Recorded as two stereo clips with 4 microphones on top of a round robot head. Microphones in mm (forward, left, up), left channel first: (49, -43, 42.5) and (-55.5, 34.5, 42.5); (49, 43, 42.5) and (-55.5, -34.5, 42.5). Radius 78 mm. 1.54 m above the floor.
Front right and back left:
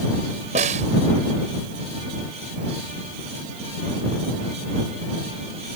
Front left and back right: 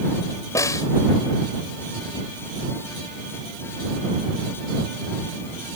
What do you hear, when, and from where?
0.6 s a snare drum: 105° left